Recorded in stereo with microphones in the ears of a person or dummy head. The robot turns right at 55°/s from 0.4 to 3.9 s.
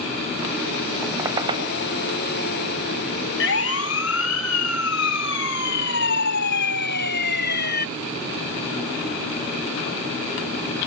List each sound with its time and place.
1.0 s a squeak: 5° right (ahead or behind); by 1.7 s 40° right (ahead or behind)
3.4 s a siren: 65° left (ahead or behind); by 7.9 s 60° left (ahead or behind)